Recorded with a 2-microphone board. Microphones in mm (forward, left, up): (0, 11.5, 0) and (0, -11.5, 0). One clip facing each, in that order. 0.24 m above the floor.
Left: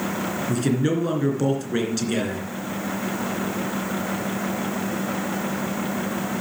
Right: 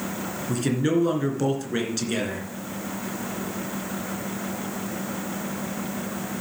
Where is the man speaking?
5° right (ahead or behind), 2.5 m.